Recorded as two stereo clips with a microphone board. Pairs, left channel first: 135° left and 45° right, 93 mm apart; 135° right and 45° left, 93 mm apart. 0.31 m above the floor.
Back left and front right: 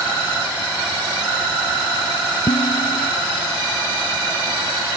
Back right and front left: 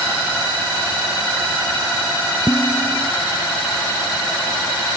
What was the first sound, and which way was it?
Dishes clattering, 155° left.